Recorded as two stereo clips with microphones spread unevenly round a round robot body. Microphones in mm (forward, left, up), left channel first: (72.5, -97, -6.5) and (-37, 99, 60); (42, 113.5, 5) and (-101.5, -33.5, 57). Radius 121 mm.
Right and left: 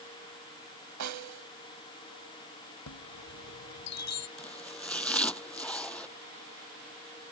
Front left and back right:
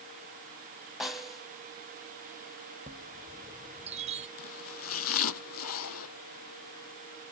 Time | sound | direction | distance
1.0 | a snare drum | 130° left | ?
2.9 | a chime | 70° right | ?
4.4 | chopping | 25° left | ?